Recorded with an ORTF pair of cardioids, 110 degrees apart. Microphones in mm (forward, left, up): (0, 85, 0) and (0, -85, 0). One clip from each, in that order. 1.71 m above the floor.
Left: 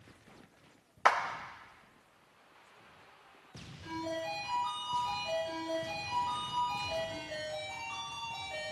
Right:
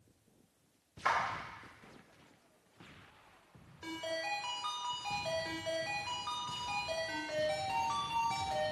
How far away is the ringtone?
About 3.5 m.